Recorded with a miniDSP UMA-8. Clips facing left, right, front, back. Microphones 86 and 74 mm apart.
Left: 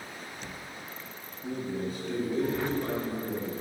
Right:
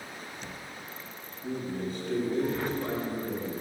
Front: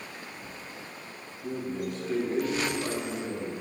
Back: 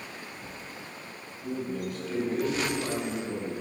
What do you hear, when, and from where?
1.4 s a man speaking: 30° left, 2.0 m; by 3.6 s 30° right, 1.9 m